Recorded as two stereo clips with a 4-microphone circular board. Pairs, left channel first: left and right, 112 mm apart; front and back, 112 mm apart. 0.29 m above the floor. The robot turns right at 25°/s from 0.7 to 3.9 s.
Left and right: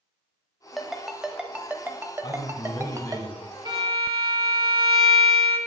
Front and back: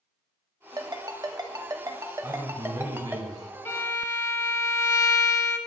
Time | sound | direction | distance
0.8 | a ringtone | straight behind | 0.7 m
2.2 | a man speaking | 120° left | 1.7 m
3.6 | a violin | 65° right | 0.8 m